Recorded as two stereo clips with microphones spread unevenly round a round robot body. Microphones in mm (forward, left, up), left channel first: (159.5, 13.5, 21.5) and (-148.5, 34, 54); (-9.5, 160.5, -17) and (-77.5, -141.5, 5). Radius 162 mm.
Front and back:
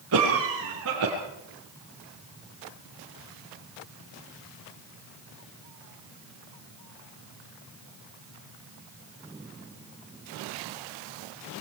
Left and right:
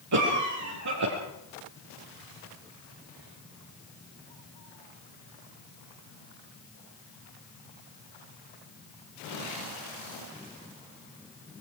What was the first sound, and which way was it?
A cough, 135° right.